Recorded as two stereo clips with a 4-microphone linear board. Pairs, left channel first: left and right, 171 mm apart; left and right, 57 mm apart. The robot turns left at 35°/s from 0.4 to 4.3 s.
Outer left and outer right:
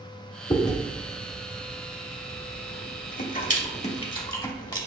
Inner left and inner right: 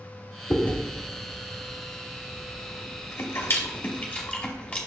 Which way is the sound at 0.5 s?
20° left (ahead or behind).